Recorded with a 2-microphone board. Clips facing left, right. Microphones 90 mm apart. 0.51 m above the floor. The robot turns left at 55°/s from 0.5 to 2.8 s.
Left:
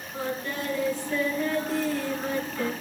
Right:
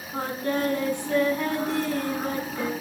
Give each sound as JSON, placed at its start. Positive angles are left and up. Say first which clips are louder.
{"t": 0.1, "sound": "singing", "louder": "right 5 dB", "azimuth_deg": -45, "distance_m": 5.5}